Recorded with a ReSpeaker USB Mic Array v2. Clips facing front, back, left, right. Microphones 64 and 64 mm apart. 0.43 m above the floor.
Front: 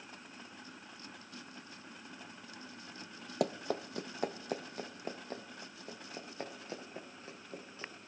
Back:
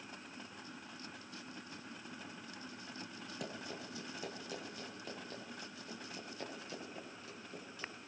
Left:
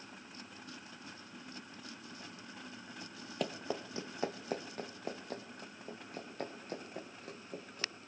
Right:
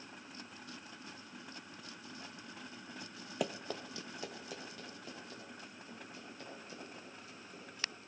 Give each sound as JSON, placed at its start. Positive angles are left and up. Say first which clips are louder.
{"t": 3.4, "sound": "running footsteps", "louder": "front 13 dB, left 1 dB", "azimuth_deg": -5, "distance_m": 0.8}